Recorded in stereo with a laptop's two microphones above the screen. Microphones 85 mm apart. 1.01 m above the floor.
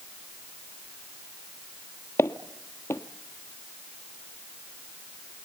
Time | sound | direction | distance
2.2 | footsteps | 30° left (ahead or behind) | 1.1 m